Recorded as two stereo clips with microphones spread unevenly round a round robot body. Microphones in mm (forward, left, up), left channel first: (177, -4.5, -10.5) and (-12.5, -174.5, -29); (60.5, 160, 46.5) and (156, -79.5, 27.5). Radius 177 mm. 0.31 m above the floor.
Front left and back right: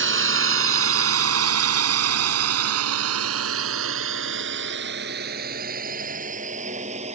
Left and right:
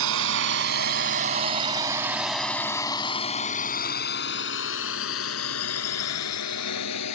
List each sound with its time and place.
0.0 s a drone: 105° right; by 7.2 s 150° left